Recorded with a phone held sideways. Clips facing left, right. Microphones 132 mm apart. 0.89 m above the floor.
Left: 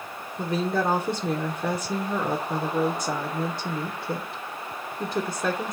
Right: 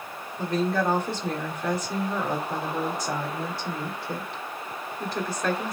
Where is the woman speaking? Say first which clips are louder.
Even; 25° left (ahead or behind), 1.8 m.